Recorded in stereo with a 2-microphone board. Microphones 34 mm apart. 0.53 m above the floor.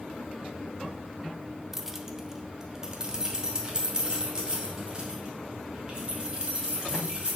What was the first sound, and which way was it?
Keys jangling, 5° right (ahead or behind).